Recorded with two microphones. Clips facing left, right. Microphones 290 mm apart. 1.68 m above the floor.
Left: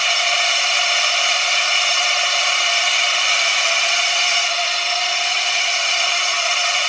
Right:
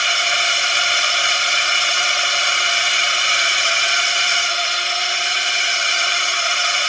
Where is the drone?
20° right (ahead or behind).